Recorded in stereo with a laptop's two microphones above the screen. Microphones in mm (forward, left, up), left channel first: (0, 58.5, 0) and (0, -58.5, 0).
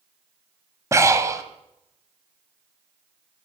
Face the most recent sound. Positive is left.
turn(degrees=-25)  # may be behind; listen again after turning